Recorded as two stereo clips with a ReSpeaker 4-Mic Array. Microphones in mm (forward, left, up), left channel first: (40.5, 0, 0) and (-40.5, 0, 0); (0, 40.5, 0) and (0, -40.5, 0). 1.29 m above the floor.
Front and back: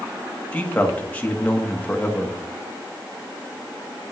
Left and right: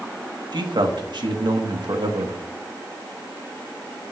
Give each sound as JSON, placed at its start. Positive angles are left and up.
{"t": 0.5, "sound": "a man speaking", "azimuth_deg": -70, "distance_m": 1.7}